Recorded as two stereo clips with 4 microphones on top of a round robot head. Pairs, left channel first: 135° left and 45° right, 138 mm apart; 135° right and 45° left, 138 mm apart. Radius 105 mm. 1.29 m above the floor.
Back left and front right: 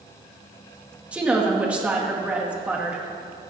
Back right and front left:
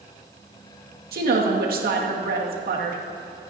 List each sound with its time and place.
1.1 s a woman speaking: 35° left, 2 m